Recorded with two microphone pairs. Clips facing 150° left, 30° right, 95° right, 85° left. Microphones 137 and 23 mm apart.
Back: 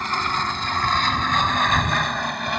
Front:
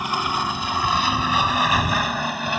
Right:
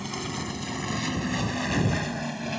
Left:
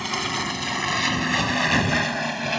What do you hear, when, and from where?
0.0 s an aircraft: 45° left; by 2.6 s 55° left